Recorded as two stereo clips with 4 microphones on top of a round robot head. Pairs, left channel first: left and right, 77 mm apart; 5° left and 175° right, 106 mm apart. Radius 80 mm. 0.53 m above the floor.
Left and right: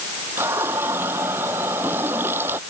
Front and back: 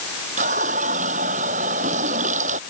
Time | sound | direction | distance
0.4 | a running tap | 160° right | ?